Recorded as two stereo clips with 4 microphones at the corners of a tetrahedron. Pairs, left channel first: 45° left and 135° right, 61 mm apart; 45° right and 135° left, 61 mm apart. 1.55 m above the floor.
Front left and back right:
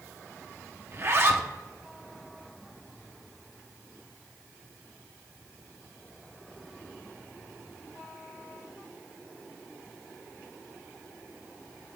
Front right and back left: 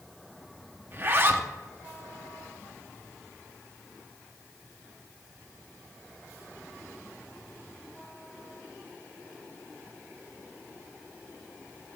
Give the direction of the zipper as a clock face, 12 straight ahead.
6 o'clock.